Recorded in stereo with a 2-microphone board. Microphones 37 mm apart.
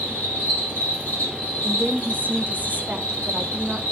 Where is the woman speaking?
45° right (ahead or behind), 0.9 m.